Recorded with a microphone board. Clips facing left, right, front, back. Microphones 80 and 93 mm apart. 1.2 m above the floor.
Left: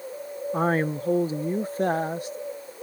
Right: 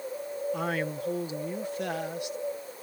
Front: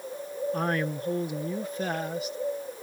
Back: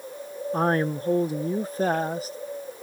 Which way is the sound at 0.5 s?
135° left.